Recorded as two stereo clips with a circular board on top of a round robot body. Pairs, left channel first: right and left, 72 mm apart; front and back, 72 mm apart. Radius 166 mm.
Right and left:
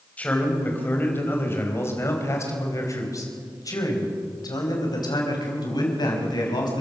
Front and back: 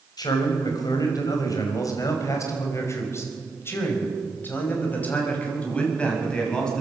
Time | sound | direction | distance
0.2 | a man speaking | 20° right | 4.5 m